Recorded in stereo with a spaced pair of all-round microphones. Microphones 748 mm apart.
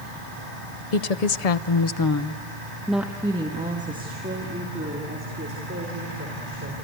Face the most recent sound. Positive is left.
turn(degrees=-20)  # may be behind; listen again after turning